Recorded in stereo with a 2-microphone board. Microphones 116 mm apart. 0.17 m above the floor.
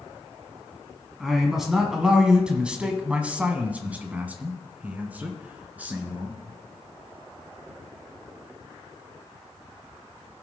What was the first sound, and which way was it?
A man speaking, centre (ahead or behind).